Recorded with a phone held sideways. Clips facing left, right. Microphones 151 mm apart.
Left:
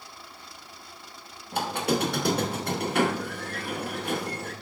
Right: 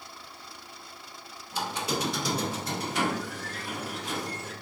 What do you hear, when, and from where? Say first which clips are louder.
1.5 s a squeak: left 5 dB; 60° left (ahead or behind), 0.7 m